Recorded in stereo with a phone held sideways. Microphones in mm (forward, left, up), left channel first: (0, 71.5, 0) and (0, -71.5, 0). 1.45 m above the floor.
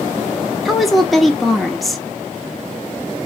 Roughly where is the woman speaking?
Centre.